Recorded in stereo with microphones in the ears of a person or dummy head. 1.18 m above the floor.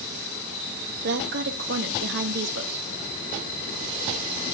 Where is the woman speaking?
55° right (ahead or behind), 1.7 m.